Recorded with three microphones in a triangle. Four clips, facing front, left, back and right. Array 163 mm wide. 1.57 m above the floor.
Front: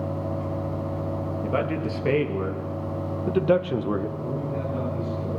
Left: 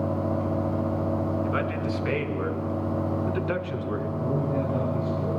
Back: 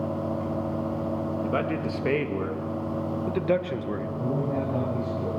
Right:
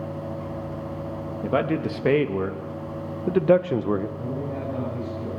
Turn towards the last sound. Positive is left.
turn(degrees=180)